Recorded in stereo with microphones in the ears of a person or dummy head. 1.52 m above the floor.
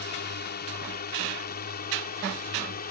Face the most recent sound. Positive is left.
turn(degrees=40)  # may be behind; listen again after turning